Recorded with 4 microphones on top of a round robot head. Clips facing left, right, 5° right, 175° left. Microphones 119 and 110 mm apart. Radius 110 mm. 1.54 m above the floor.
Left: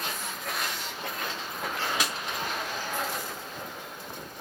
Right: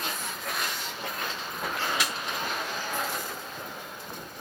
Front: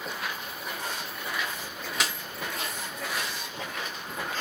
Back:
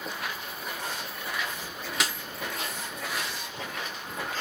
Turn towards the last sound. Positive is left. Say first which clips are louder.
# even, even
turn(degrees=90)